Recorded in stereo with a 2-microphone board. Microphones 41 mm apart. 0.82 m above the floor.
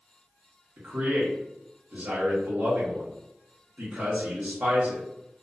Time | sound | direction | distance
0.8 | a man speaking | 50° right (ahead or behind) | 1.0 m